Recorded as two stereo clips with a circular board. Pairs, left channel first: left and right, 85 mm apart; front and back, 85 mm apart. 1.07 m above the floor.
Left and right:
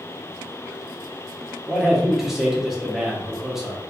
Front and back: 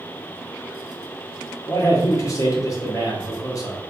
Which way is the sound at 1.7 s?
5° right.